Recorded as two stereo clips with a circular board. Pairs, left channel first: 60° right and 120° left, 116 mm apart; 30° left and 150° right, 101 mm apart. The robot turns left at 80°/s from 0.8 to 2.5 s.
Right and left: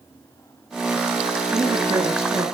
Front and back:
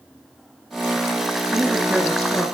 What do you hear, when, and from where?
1.5 s a woman speaking: 165° left, 2 m; by 2.5 s 90° left, 2 m